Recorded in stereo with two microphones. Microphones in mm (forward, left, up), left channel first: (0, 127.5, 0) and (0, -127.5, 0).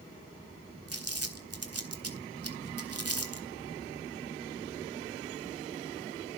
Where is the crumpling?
65° right (ahead or behind), 2 m.